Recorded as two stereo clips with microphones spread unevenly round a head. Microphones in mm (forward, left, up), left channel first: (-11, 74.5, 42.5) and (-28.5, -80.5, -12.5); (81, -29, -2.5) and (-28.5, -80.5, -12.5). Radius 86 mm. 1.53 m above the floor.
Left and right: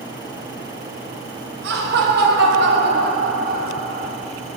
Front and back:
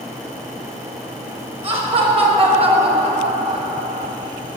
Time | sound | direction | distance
1.6 | laughter | 115° right | 5 m